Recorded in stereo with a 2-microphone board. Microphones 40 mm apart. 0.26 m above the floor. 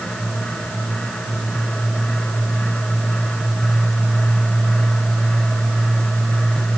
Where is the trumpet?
I don't hear a trumpet.